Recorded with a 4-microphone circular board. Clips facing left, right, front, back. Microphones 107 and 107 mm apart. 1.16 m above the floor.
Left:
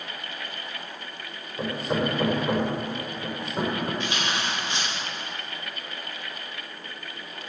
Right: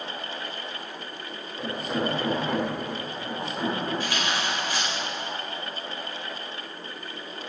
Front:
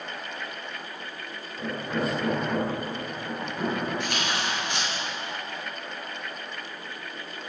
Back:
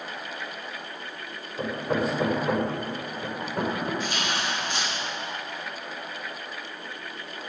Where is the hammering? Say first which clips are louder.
Left 2 dB, back 3 dB; 140° left, 3.5 m.